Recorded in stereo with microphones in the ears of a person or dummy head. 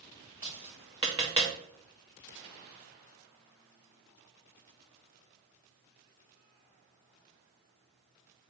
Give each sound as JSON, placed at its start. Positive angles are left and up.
{"t": 0.4, "sound": "tapping", "side_deg": -15, "distance_m": 0.6}